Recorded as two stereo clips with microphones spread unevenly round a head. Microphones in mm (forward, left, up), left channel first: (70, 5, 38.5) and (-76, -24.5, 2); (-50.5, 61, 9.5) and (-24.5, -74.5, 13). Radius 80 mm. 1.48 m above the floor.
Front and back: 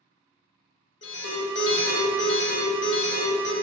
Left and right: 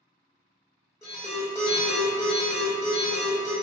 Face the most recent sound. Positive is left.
turn(degrees=25)